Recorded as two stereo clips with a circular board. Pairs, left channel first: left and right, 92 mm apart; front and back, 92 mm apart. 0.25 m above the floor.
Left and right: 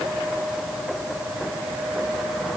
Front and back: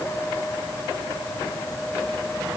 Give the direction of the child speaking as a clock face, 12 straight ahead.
I don't hear a child speaking.